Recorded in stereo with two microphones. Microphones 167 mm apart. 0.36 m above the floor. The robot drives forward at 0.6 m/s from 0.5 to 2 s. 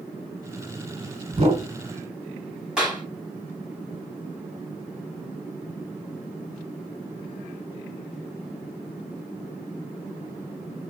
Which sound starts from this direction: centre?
A clap, at 2.8 s.